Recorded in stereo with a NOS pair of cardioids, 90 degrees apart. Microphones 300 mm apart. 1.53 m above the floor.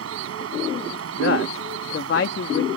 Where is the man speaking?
45° left.